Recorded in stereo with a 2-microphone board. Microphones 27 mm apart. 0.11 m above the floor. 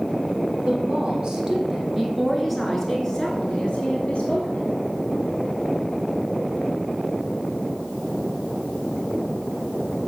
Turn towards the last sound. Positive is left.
turn(degrees=50)  # may be behind; listen again after turning